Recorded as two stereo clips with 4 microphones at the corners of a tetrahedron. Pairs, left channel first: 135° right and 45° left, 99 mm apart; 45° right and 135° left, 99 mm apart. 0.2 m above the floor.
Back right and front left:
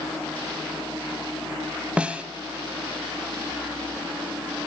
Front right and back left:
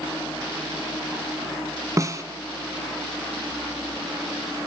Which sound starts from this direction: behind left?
A snare drum, at 2.0 s.